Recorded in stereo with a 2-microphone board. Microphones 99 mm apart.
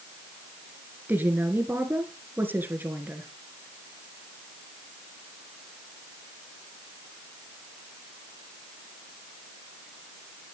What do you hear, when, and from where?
1.1 s a woman speaking: 20° right (ahead or behind), 1.9 m